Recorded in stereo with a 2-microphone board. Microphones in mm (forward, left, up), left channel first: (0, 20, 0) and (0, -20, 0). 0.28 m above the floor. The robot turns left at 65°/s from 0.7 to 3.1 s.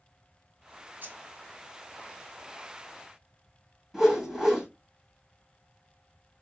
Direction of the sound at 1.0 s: 55° right (ahead or behind).